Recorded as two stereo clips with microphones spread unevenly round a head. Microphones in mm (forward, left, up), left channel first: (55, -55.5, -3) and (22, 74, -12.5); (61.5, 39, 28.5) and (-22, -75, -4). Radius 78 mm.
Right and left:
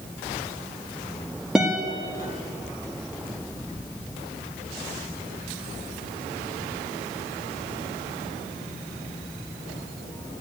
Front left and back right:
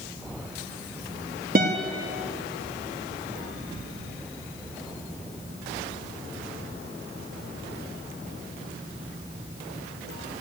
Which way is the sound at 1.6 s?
170° right.